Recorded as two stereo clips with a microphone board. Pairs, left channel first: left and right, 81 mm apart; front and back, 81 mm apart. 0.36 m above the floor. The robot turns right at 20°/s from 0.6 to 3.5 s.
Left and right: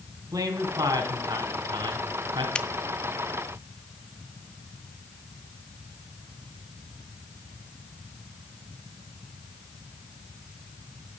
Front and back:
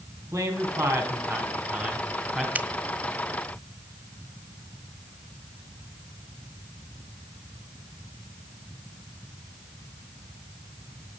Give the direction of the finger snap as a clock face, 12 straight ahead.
7 o'clock.